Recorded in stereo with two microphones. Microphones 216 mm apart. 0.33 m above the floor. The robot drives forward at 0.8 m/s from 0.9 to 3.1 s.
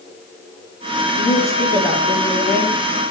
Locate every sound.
1.1 s a woman speaking: 45° left (ahead or behind), 6 m; by 2.8 s 40° left (ahead or behind), 7 m